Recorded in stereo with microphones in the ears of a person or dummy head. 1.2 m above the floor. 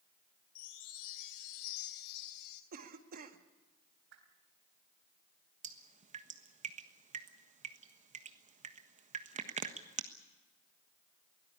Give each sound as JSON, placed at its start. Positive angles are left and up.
{"t": 0.6, "sound": "a chime", "side_deg": 55, "distance_m": 3.0}
{"t": 2.7, "sound": "a cough", "side_deg": -45, "distance_m": 1.8}
{"t": 4.1, "sound": "a whoosh", "side_deg": -65, "distance_m": 3.0}
{"t": 5.6, "sound": "dripping", "side_deg": -40, "distance_m": 1.3}